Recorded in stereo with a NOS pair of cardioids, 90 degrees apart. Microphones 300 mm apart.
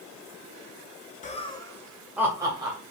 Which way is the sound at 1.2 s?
25° left.